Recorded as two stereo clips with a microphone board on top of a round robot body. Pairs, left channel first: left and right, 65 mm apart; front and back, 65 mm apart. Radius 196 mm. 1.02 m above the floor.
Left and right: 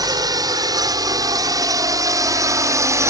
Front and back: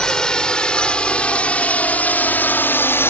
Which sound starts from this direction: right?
A drone, at 0.0 s.